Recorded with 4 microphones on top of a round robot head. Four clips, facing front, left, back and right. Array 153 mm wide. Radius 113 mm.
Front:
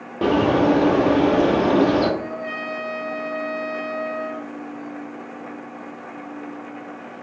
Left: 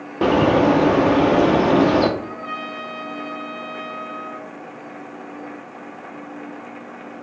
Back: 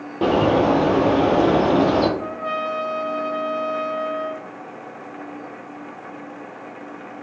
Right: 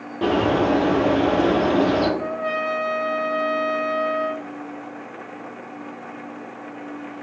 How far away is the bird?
About 0.6 m.